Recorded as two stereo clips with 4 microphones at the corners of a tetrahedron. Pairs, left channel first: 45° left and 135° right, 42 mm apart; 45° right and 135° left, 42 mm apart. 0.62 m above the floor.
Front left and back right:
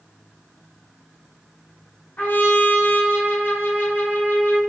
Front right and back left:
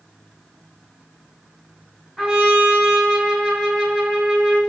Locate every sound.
2.2 s a trumpet: 50° left, 1.8 m